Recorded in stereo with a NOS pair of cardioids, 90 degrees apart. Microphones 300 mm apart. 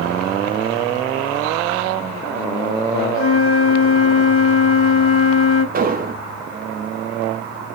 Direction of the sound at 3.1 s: 45° left.